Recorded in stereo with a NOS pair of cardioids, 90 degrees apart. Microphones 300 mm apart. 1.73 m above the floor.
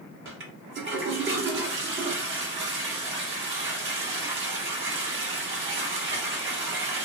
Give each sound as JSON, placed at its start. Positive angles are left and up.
{"t": 0.2, "sound": "a toilet flushing", "azimuth_deg": -40, "distance_m": 1.0}